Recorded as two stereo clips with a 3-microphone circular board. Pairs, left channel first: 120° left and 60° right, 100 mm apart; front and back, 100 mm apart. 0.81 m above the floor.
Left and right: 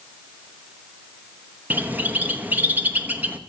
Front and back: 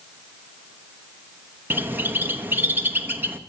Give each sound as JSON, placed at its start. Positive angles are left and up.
{"t": 1.7, "sound": "a bird", "azimuth_deg": -120, "distance_m": 1.2}